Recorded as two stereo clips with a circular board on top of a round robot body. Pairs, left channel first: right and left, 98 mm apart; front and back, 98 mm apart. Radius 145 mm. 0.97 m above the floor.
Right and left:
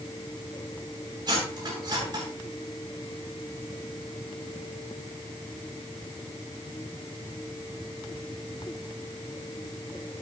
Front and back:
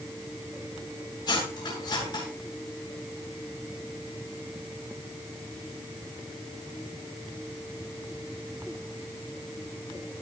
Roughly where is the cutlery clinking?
Ahead left.